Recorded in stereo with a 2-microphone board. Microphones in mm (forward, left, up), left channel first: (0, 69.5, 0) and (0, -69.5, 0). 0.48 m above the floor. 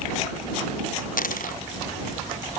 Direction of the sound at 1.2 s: 75° left (ahead or behind).